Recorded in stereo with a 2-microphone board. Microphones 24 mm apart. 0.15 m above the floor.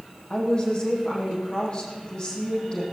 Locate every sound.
0.3 s a woman speaking: 35° left (ahead or behind), 5.5 m